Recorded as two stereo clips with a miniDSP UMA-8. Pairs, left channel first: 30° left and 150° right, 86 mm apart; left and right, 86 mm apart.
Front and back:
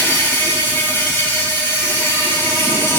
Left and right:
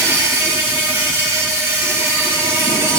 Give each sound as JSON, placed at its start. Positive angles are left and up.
{"t": 0.0, "sound": "an insect", "azimuth_deg": -30, "distance_m": 1.7}